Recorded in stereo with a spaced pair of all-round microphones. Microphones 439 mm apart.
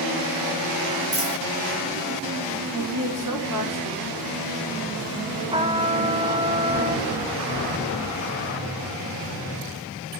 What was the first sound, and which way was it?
A dropped coin, 65° right (ahead or behind).